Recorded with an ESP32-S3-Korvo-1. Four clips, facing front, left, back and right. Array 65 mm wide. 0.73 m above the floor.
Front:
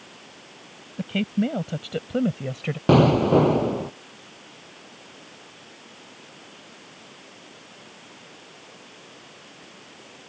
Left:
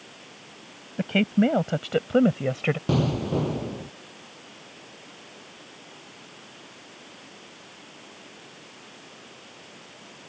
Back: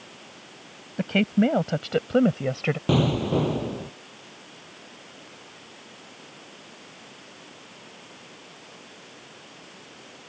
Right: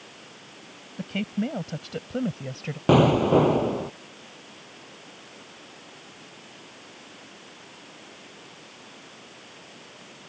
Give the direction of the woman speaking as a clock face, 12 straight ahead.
7 o'clock.